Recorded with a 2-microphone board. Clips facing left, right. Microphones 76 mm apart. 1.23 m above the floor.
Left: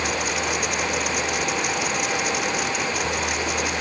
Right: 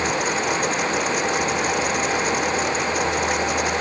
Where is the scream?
I don't hear a scream.